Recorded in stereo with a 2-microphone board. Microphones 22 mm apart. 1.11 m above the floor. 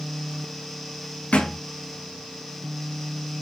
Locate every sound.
1.3 s a thud: 75° left (ahead or behind), 3.5 m